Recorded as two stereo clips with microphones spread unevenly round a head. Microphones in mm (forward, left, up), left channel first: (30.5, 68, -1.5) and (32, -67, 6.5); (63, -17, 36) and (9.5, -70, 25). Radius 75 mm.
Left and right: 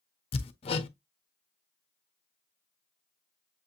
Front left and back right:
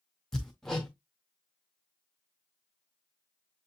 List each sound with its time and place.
0.3 s hammering: 115° left, 0.5 m